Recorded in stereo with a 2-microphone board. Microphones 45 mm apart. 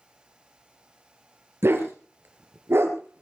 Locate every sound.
1.6 s a dog barking: 60° right (ahead or behind), 2.5 m